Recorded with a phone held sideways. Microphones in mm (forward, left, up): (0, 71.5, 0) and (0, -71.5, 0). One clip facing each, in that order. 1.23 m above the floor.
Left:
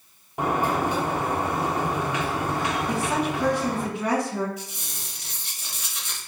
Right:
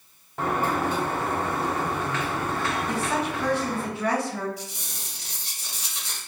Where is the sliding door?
15° left (ahead or behind), 0.6 m.